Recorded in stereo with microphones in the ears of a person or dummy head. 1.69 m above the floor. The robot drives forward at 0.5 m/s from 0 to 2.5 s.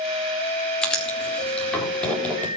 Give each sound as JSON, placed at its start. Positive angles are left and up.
{"t": 0.8, "sound": "writing", "side_deg": 15, "distance_m": 5.0}